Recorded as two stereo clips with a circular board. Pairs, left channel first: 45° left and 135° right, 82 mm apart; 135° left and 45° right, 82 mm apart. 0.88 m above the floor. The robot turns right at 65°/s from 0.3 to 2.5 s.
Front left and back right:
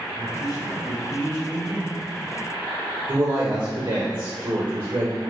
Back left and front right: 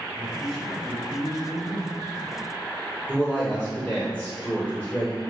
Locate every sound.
0.1 s a man speaking: 35° left, 1.2 m; by 2.0 s 150° left, 1.2 m
3.1 s a woman speaking: 150° right, 1.8 m